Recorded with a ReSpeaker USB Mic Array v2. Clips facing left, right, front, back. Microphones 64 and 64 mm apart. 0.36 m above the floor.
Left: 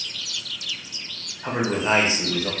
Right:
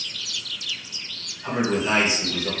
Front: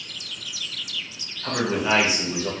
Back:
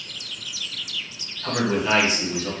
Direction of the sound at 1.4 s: 100° left.